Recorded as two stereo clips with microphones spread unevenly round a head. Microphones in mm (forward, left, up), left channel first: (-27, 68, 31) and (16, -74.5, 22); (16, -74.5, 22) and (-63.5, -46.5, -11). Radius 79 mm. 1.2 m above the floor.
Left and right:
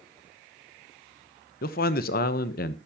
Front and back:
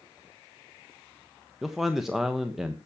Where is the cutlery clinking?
I don't hear cutlery clinking.